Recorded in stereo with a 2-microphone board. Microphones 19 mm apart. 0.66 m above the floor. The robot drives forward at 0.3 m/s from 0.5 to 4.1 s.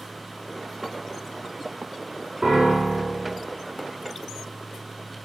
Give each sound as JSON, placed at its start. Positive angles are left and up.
{"t": 2.4, "sound": "a piano", "side_deg": -70, "distance_m": 4.0}